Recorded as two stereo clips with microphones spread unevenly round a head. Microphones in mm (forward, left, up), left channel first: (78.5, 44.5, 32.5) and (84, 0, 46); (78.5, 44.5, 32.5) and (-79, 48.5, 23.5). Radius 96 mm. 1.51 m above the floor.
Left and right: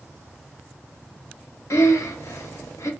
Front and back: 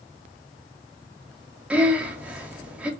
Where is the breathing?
95° left, 0.6 m.